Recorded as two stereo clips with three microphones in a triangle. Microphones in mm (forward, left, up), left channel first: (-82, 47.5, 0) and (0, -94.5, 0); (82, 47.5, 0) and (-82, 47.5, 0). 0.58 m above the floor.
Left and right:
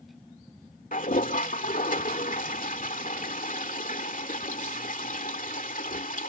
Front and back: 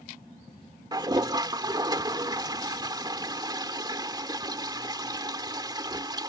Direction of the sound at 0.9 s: 120° left.